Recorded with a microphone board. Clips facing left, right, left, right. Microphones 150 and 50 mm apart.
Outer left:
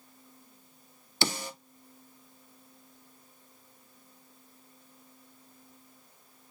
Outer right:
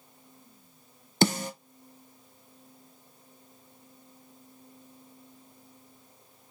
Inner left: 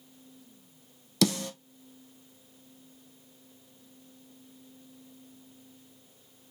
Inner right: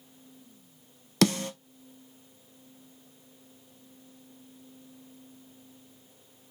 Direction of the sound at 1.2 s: 50° right (ahead or behind).